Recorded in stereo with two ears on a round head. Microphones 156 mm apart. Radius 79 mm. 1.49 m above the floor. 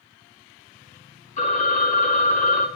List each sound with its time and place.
1.4 s a phone ringing: 45° left (ahead or behind), 1.4 m